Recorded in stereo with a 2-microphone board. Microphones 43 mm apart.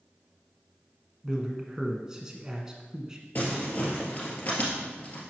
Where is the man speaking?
15° right (ahead or behind), 1.1 m.